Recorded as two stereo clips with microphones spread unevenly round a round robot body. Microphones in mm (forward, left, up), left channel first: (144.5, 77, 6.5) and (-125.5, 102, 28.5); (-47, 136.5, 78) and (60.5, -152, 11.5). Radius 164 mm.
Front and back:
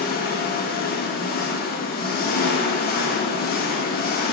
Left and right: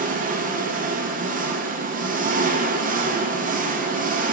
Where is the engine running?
35° right, 0.8 m.